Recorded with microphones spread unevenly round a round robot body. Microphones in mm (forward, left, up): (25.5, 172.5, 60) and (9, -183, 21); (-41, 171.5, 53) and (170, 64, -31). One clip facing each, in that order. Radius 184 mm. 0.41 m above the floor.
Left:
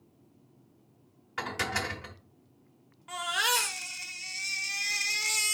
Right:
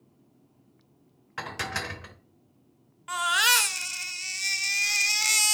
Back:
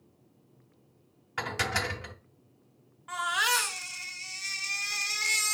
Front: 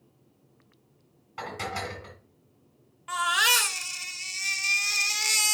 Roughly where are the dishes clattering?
Behind.